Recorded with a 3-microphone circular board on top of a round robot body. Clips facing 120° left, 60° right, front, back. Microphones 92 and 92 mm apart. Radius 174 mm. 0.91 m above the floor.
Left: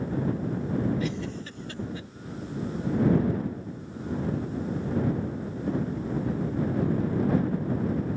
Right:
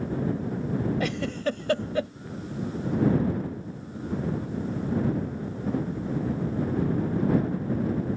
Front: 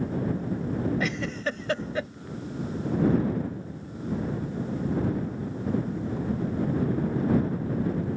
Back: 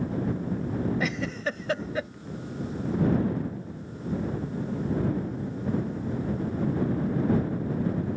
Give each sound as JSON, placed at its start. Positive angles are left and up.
{"t": 1.0, "sound": "a giggle", "azimuth_deg": -90}